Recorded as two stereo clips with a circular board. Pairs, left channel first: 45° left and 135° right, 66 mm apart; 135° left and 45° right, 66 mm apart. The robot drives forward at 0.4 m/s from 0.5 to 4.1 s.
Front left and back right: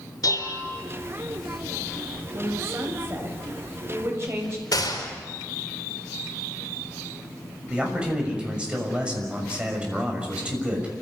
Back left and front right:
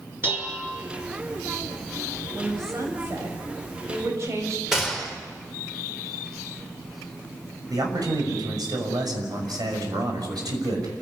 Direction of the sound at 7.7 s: 60° right.